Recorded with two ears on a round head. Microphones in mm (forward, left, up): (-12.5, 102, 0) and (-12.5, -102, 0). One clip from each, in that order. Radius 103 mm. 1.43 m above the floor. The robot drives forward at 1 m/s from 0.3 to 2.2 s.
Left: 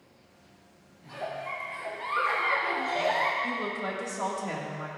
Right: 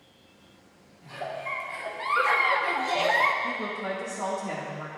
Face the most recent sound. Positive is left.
turn(degrees=15)  # may be behind; listen again after turning